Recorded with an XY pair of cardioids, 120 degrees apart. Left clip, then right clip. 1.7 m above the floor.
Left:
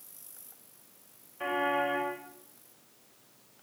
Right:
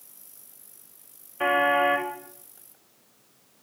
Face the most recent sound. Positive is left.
turn(degrees=-55)